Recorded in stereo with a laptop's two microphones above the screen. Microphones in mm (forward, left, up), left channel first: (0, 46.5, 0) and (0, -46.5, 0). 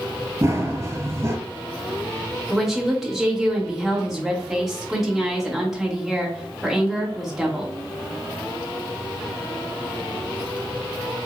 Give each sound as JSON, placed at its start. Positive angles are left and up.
{"t": 0.4, "sound": "running footsteps", "side_deg": -30, "distance_m": 1.1}
{"t": 2.5, "sound": "a woman speaking", "side_deg": 0, "distance_m": 1.0}